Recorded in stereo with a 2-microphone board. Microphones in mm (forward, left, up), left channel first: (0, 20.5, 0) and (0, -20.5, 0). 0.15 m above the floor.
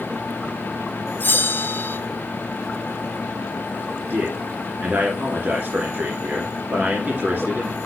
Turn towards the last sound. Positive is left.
turn(degrees=-50)  # may be behind; listen again after turning